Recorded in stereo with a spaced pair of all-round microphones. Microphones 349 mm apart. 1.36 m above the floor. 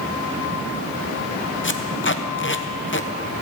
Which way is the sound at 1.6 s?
35° left (ahead or behind).